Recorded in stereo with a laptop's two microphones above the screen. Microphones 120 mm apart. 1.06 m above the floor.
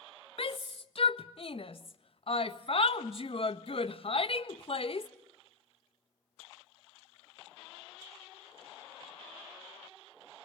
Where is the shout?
55° left (ahead or behind), 1.4 m.